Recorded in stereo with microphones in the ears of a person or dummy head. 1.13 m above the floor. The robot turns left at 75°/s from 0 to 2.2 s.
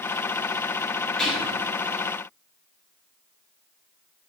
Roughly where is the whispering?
Ahead.